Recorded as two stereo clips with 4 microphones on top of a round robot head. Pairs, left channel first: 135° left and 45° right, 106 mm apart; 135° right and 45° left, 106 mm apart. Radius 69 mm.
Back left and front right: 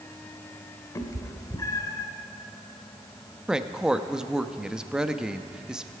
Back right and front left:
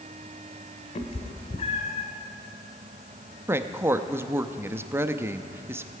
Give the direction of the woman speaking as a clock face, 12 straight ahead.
11 o'clock.